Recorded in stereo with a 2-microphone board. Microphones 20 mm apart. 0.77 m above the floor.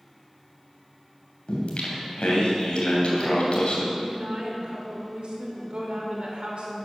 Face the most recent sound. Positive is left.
turn(degrees=-65)  # may be behind; listen again after turning